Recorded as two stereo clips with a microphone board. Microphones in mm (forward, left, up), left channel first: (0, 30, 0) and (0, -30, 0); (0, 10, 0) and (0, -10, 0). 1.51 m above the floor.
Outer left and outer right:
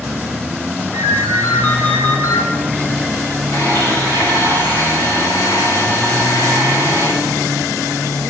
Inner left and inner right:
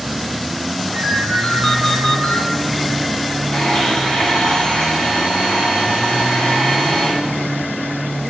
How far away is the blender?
About 7 m.